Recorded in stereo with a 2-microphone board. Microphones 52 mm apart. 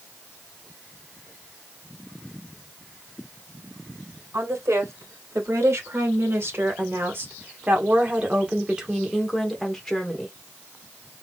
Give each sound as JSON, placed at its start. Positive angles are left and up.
{"t": 4.3, "sound": "a woman speaking", "side_deg": -70, "distance_m": 2.5}